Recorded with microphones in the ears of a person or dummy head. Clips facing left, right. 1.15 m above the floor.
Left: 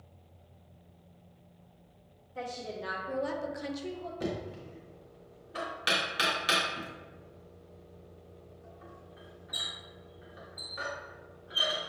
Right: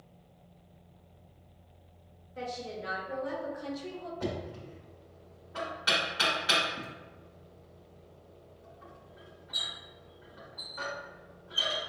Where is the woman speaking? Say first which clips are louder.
Even; 70° left (ahead or behind), 1.6 m; by 4.1 s 10° right (ahead or behind), 1.0 m.